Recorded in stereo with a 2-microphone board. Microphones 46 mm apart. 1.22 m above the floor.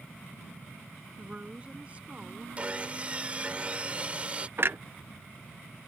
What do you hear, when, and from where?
1.2 s a woman speaking: 30° right (ahead or behind)
2.6 s sawing: 30° right (ahead or behind)
4.6 s a clunk: 50° right (ahead or behind)